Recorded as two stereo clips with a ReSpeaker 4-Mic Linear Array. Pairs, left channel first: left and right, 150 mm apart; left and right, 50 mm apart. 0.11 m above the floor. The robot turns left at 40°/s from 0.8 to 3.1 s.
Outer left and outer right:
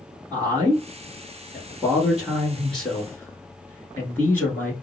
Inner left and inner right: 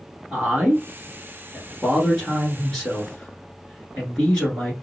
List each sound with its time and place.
0.3 s a man speaking: 25° right (ahead or behind), 1.2 m; by 4.7 s 15° left (ahead or behind), 1.2 m